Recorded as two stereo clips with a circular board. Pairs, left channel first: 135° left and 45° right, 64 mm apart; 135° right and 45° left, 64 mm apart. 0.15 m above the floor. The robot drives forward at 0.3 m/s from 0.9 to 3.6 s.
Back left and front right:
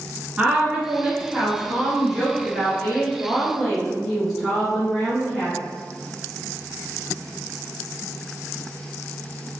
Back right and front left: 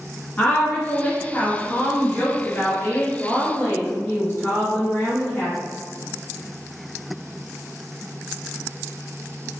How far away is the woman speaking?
About 1.2 m.